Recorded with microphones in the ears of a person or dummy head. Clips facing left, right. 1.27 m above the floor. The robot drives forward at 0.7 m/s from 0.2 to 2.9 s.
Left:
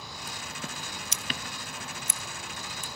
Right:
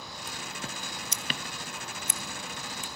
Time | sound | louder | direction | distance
1.1 | scissors | left 1 dB | 60° left (ahead or behind) | 0.9 m